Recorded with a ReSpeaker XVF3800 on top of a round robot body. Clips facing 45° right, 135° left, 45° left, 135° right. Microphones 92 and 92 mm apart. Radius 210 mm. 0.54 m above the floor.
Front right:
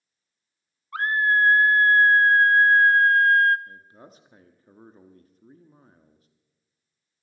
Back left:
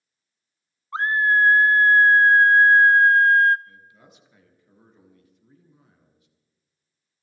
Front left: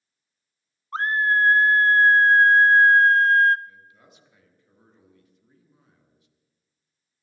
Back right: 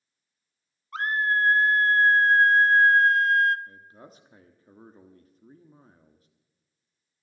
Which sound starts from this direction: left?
A scream, at 0.9 s.